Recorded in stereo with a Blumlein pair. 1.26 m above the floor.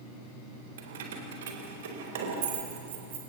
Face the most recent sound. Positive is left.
turn(degrees=-55)